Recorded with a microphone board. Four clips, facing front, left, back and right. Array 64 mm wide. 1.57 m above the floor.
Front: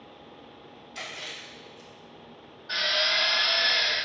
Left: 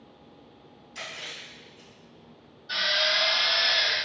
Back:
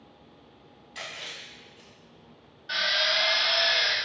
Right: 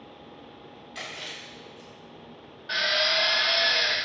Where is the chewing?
100° right, 1.7 m.